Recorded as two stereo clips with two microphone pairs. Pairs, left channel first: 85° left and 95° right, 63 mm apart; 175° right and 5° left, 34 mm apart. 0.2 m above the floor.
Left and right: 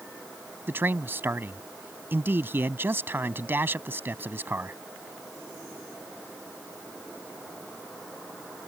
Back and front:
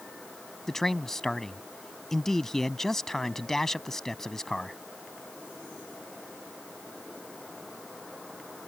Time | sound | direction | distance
0.7 | a man speaking | 100° right | ?